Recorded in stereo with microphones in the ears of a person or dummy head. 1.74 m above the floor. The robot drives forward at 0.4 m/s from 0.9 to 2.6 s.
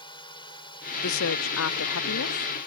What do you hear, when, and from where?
0.0 s a drone: 25° left (ahead or behind)
1.0 s a woman speaking: 65° left (ahead or behind); by 2.5 s 60° left (ahead or behind)